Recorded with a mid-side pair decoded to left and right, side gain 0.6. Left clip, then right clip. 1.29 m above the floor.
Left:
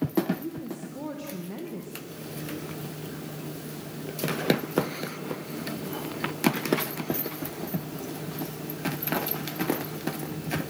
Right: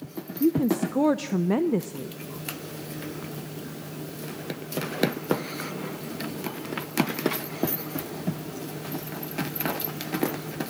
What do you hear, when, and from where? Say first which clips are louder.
0.4 s a woman speaking: right 13 dB; 60° right, 0.6 m